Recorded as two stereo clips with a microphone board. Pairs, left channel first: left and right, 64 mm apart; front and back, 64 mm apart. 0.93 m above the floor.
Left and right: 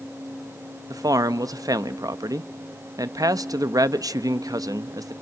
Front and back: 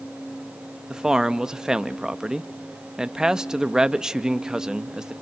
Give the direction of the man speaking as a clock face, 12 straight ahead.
3 o'clock.